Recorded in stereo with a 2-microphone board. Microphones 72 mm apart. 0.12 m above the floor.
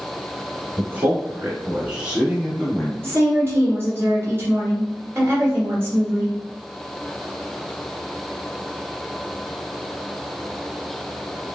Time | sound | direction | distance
0.8 | a man speaking | 30° right (ahead or behind) | 1.5 m
3.0 | a woman speaking | 35° right (ahead or behind) | 1.6 m